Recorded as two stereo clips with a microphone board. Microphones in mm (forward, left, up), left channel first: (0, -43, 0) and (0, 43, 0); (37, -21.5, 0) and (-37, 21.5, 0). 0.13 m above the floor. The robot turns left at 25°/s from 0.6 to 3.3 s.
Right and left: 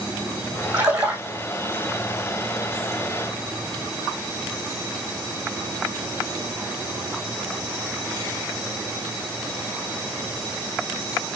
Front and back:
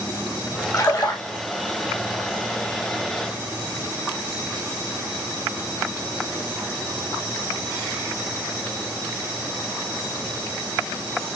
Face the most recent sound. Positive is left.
turn(degrees=-45)